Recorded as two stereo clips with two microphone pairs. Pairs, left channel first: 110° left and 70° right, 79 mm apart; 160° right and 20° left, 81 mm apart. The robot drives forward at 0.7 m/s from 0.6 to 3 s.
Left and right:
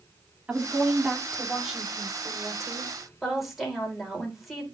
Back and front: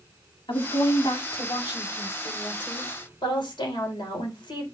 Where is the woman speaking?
145° right, 2 m; by 4.6 s 160° right, 3.5 m.